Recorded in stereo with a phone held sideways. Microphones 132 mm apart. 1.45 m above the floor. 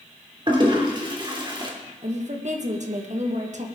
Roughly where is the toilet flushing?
Right.